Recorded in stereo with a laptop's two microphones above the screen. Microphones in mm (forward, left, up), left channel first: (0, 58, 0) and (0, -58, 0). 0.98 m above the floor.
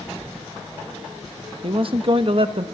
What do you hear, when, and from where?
1.6 s a man speaking: 50° right (ahead or behind), 0.8 m